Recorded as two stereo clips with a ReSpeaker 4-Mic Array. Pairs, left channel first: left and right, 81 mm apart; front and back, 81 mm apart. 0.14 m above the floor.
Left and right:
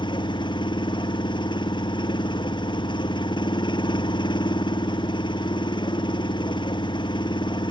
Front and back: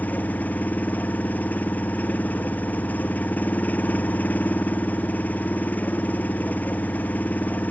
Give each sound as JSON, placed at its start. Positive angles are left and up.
{"t": 0.0, "sound": "an engine running", "azimuth_deg": 70}